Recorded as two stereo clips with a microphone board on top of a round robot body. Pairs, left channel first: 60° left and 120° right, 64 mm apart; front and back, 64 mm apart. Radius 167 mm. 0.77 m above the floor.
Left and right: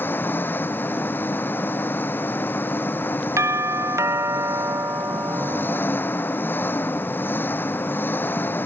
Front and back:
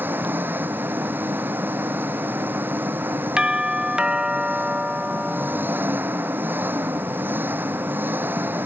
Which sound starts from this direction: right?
A doorbell, at 3.4 s.